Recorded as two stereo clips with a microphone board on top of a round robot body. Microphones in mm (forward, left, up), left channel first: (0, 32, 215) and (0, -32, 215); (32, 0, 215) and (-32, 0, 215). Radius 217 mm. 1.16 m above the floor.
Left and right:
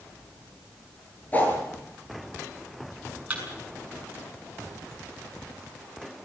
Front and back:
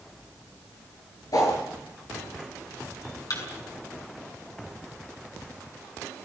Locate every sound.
1.3 s a whoosh: 25° left, 7.5 m
3.3 s a thud: 20° right, 6.5 m